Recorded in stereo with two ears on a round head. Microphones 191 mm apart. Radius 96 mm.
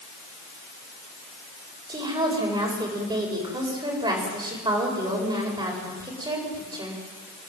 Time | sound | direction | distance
1.9 | a woman speaking | 20° right (ahead or behind) | 8 m